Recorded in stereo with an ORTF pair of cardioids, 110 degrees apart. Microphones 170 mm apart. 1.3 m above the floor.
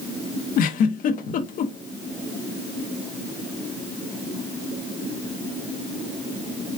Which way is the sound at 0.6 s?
60° left.